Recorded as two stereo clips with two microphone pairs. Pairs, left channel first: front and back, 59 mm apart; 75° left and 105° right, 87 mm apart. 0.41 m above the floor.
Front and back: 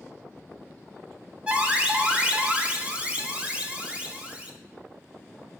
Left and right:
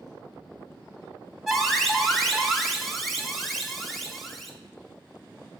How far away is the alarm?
About 1.4 m.